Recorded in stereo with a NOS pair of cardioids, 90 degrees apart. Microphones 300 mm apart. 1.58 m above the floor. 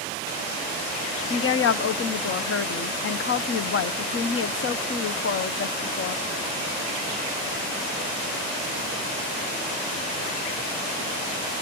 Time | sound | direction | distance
1.3 | a woman speaking | 45° left | 0.9 m